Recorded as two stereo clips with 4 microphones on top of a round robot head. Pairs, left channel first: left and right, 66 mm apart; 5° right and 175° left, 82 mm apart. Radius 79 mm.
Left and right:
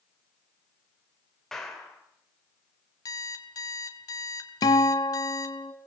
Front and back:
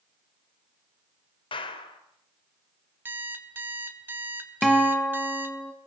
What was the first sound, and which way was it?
A clap, 5° left.